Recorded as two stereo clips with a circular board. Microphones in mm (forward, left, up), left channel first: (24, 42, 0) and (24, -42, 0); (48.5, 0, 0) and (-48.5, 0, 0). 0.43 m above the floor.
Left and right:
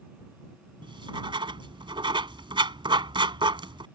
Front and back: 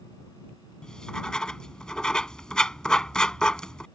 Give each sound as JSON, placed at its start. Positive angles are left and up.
{"t": 0.8, "sound": "writing", "azimuth_deg": -80}